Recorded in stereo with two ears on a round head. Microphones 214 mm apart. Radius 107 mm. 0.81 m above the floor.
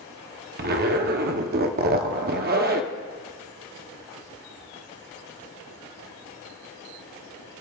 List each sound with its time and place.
0.6 s a zipper: 40° right (ahead or behind), 0.8 m